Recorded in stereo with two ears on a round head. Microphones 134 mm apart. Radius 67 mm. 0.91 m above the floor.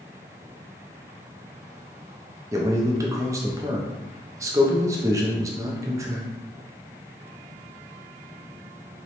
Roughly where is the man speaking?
Right.